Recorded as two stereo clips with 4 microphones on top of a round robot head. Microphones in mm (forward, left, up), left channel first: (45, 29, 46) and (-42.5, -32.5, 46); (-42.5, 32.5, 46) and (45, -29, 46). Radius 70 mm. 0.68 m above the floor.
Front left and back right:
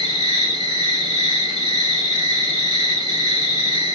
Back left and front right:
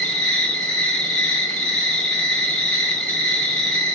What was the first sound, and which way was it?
An insect, 135° right.